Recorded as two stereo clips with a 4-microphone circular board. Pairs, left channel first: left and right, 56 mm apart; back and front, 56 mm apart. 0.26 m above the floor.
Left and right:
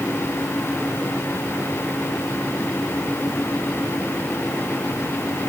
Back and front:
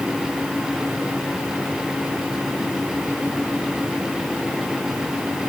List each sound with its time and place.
Only background noise.